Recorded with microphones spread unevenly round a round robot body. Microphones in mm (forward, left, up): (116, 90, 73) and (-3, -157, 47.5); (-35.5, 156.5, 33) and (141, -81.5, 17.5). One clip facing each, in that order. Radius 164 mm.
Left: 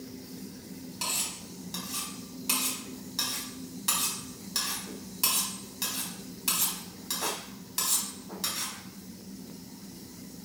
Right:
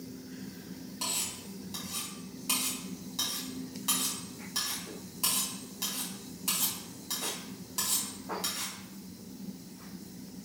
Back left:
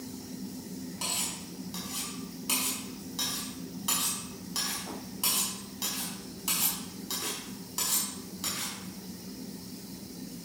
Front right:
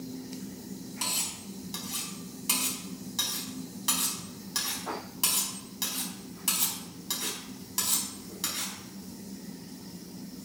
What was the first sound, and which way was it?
Cutlery clinking, straight ahead.